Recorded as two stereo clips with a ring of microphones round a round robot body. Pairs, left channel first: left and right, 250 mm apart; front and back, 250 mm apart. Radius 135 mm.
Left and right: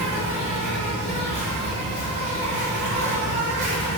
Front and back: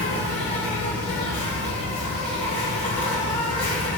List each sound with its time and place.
0.0 s an insect: 60° right, 1.2 m